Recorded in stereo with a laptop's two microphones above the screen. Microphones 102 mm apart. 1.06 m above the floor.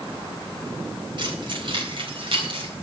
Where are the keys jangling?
55° right (ahead or behind), 4 m; by 2.7 s 65° right (ahead or behind), 4 m.